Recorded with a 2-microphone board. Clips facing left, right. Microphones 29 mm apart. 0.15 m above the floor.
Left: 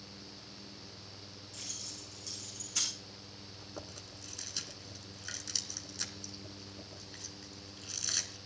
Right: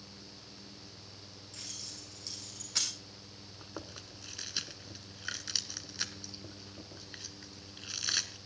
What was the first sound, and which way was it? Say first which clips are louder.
Keys jangling: even; 70° right (ahead or behind).